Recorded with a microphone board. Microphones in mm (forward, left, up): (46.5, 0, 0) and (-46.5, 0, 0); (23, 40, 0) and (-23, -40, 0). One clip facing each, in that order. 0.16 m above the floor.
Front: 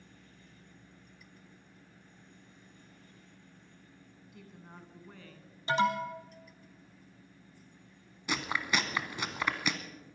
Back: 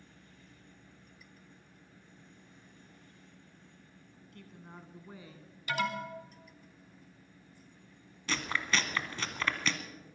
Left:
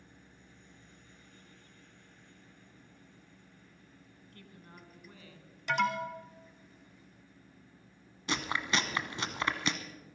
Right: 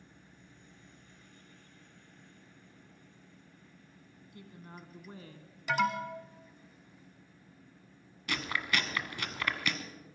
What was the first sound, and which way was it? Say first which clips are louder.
A woman speaking: back 1 dB, right 5 dB; 75° right.